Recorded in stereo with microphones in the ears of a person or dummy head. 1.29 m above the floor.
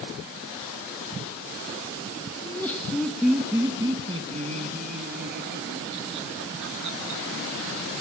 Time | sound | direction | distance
2.4 | laughter | 15° left (ahead or behind) | 1.9 m